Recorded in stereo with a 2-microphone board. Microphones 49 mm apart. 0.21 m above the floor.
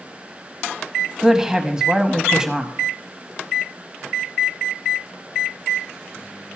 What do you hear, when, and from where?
1.2 s a woman speaking: 15° right (ahead or behind), 1.0 m